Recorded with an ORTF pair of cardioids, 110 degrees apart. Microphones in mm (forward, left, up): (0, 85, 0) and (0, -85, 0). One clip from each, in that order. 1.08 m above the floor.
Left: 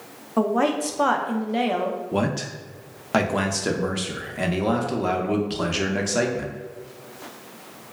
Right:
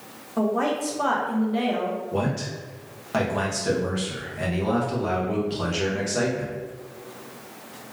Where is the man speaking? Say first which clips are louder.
Left 2 dB; 30° left, 0.6 m.